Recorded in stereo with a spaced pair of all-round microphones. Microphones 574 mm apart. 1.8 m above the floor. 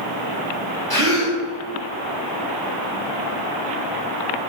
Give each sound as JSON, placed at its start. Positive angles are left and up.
{"t": 0.9, "sound": "a gasp", "side_deg": -40, "distance_m": 1.8}